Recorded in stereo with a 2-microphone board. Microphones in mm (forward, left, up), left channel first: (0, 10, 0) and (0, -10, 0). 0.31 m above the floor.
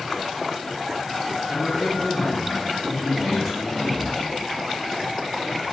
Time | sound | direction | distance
1.4 | a man speaking | 10° left (ahead or behind) | 1.9 m